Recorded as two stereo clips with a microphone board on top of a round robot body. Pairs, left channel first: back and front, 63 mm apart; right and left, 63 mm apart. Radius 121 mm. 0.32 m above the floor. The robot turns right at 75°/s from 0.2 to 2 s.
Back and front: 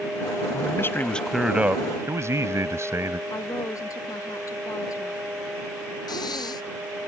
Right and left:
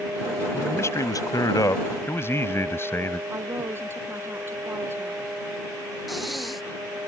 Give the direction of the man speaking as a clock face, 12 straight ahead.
5 o'clock.